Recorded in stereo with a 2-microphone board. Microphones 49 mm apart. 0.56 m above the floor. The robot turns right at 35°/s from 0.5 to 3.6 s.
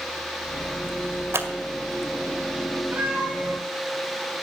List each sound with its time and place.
1.3 s scissors: 60° right (ahead or behind), 1.9 m
2.9 s a cat meowing: 45° right (ahead or behind), 7.5 m; by 3.6 s 20° right (ahead or behind), 7.5 m